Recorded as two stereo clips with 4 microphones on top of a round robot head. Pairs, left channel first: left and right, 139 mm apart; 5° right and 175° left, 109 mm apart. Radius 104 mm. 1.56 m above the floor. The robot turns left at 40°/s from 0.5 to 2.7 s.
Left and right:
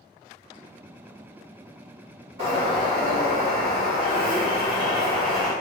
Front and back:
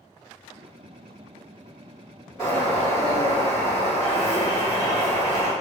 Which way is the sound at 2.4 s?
85° right.